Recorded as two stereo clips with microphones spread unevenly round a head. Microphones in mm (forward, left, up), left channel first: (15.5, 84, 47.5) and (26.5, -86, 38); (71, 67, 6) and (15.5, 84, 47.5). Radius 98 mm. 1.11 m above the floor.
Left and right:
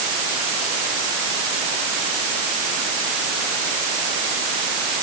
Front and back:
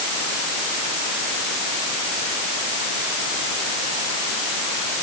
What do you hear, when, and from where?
Only background noise.